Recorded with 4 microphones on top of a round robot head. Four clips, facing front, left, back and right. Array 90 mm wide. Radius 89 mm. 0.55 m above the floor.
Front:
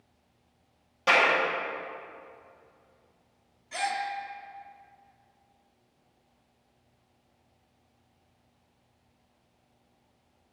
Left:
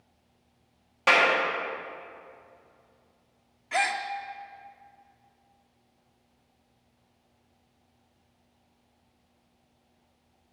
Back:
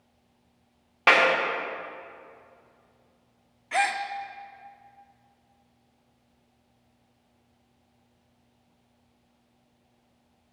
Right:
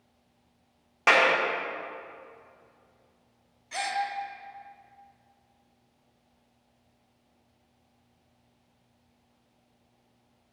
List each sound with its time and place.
1.1 s a clap: 160° right, 1.7 m
3.7 s a gasp: 145° left, 0.5 m